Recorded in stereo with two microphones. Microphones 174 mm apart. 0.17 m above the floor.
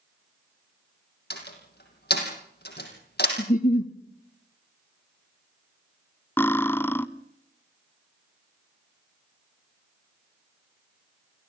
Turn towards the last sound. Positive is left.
turn(degrees=15)  # may be behind; listen again after turning